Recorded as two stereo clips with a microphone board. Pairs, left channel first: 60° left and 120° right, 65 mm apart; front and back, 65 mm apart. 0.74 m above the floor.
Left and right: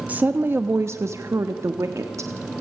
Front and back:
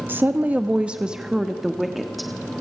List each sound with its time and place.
0.1 s a woman speaking: 165° right, 0.9 m; by 2.3 s 90° right, 1.6 m